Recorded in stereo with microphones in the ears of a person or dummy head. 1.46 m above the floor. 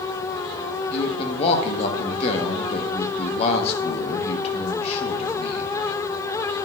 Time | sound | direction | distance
0.9 | a man speaking | 35° left (ahead or behind) | 1.2 m